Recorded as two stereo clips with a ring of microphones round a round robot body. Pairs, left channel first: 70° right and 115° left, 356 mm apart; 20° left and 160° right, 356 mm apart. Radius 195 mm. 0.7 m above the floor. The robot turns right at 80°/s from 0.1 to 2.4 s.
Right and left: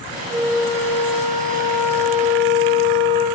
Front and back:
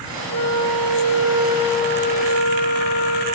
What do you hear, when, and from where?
0.3 s a flute: 175° right, 8 m; by 3.2 s 5° right, 8 m